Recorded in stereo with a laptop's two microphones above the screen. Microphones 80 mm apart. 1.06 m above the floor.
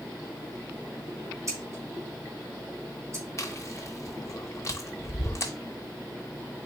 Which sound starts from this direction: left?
Chewing, at 3.4 s.